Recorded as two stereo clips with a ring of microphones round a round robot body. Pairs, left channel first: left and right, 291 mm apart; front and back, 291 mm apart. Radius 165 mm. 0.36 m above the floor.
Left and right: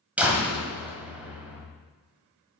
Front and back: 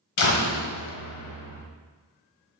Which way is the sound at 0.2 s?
5° right.